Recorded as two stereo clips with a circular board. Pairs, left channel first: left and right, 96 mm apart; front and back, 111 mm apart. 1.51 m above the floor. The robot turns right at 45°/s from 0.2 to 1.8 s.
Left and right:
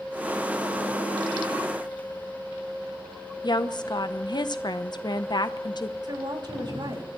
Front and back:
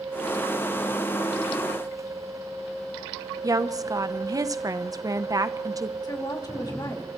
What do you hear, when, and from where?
3.4 s a woman speaking: 125° left, 0.8 m
6.0 s a woman speaking: 50° right, 3 m